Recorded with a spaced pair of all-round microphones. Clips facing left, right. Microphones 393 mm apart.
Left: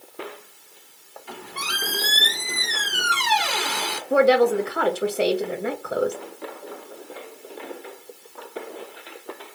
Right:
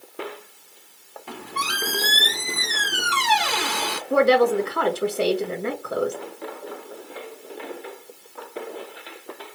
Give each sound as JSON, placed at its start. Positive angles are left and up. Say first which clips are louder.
{"t": 1.3, "sound": "a squeak", "louder": "right 2 dB", "side_deg": -65, "distance_m": 0.7}
{"t": 4.1, "sound": "a woman speaking", "louder": "left 1 dB", "side_deg": -5, "distance_m": 0.7}